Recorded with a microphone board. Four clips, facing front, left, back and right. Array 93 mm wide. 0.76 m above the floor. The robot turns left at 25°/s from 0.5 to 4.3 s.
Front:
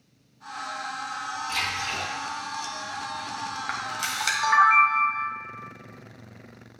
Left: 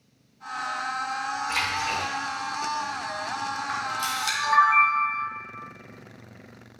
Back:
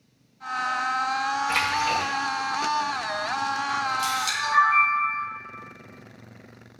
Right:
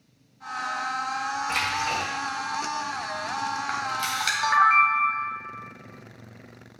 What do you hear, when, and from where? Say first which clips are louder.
1.5 s a splash: right 1 dB, back 7 dB; 155° right, 1.3 m; by 2.1 s 170° right, 1.3 m
3.7 s a camera shutter: even, back 6 dB; 35° right, 1.5 m; by 5.2 s 50° right, 1.5 m